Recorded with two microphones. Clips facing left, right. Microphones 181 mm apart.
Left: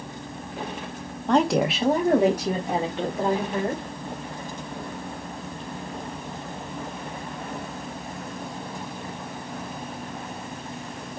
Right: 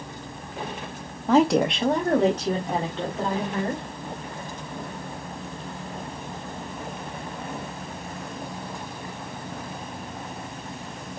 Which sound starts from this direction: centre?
A woman speaking, at 1.3 s.